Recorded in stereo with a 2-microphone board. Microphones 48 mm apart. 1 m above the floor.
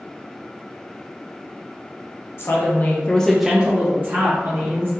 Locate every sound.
2.4 s a woman speaking: 60° left (ahead or behind), 0.9 m; by 4.9 s 60° right (ahead or behind), 1.4 m